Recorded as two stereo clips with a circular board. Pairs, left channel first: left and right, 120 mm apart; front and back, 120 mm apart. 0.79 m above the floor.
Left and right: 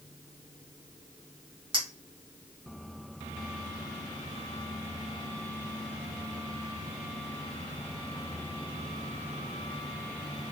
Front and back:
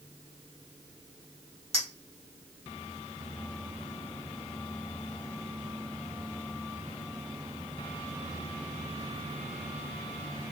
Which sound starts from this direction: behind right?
A clink, at 1.7 s.